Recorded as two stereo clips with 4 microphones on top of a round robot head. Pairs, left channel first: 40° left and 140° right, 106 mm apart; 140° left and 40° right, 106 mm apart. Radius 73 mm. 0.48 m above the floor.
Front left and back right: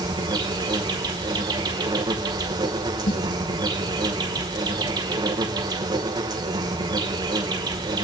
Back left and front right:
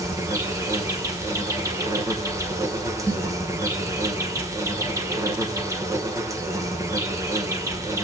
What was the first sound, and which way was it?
An insect, 95° right.